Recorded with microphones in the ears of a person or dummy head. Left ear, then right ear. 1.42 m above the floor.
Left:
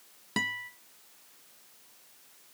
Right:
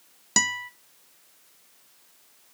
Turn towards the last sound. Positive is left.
turn(degrees=-20)  # may be behind; listen again after turning